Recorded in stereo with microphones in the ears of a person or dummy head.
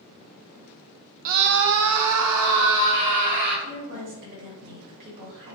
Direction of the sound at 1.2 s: 45° right (ahead or behind).